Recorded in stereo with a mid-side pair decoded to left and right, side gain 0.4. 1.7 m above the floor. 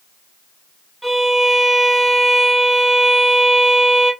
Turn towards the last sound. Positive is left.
turn(degrees=-15)